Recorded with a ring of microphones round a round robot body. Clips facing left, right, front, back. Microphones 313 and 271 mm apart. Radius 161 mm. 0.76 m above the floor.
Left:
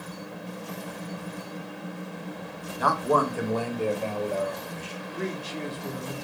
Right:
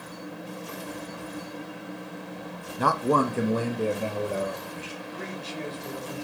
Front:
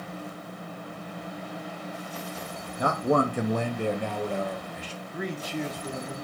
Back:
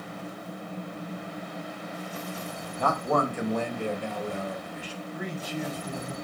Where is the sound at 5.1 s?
20° left, 1.3 m.